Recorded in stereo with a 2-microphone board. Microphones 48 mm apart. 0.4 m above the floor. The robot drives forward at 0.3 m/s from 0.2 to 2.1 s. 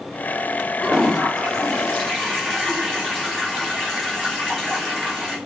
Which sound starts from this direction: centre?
A toilet flushing, at 0.8 s.